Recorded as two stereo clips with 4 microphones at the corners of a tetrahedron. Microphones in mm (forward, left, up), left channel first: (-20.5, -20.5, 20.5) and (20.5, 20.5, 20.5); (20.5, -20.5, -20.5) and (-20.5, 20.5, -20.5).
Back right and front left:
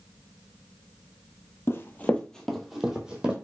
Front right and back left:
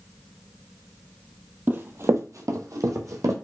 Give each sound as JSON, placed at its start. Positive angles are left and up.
{"t": 1.7, "sound": "running footsteps", "azimuth_deg": -170, "distance_m": 0.5}